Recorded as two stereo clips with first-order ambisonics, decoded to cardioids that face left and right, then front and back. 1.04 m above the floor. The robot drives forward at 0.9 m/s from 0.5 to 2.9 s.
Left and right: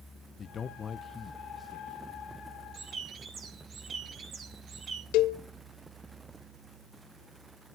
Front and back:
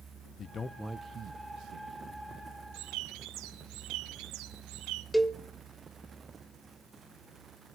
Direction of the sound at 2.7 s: 155° right.